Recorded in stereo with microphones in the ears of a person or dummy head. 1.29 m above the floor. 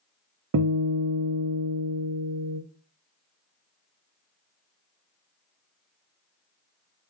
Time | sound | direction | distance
0.5 | a guitar | 80° right | 0.5 m